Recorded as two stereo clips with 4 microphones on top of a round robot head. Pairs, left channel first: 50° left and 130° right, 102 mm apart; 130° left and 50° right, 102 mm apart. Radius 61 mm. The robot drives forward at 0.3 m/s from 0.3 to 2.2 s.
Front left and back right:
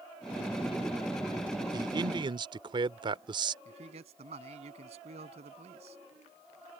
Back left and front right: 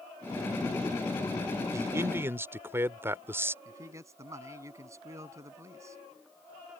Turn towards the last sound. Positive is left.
turn(degrees=-110)